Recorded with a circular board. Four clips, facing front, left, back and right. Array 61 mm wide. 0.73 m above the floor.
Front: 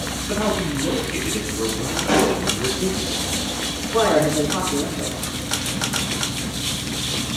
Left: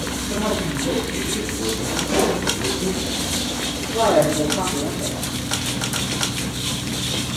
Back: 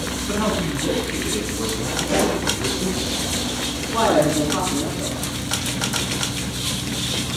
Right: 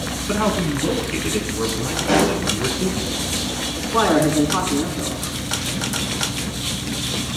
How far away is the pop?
About 5 m.